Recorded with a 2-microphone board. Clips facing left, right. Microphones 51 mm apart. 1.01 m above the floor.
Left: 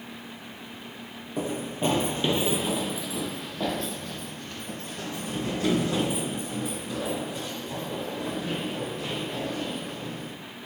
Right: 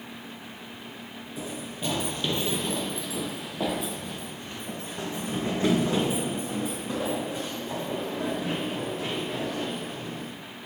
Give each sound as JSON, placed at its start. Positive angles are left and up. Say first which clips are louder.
{"t": 1.4, "sound": "running footsteps", "louder": "left 7 dB", "side_deg": 45, "distance_m": 1.4}